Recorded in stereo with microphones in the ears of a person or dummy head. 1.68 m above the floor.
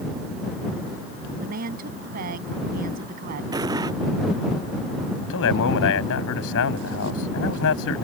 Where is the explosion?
25° right (ahead or behind).